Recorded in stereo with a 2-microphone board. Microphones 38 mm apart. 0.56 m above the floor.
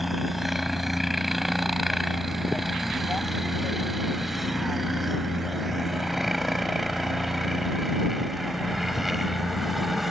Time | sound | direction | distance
0.0 | a helicopter | 5° right (ahead or behind) | ?